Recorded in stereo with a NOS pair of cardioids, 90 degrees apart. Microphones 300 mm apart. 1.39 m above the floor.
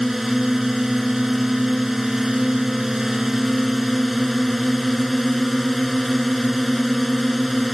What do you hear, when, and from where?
0.0 s a drone: straight ahead